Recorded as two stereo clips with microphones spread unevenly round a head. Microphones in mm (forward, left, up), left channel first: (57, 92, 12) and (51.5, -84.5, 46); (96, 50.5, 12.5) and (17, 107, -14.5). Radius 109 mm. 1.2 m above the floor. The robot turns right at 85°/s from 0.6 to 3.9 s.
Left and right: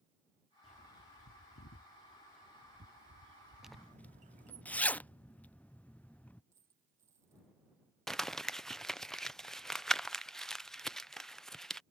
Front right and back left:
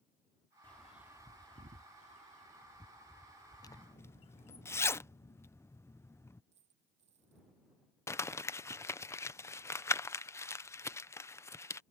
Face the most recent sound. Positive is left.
turn(degrees=30)